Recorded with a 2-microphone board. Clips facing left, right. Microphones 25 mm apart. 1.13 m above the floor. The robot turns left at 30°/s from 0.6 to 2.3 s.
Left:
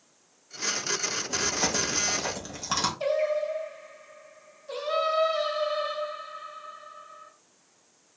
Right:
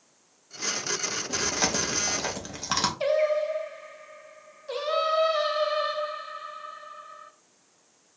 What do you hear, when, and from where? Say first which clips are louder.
1.3 s chewing: right 1 dB; 50° right (ahead or behind), 0.9 m; by 2.9 s 20° right (ahead or behind), 0.9 m
3.0 s singing: right 4 dB; 30° right (ahead or behind), 0.6 m